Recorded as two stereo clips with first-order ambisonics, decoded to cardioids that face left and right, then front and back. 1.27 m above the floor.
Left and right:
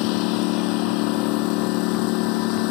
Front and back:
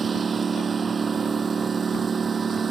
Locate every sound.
0.0 s a lawn mower: 110° left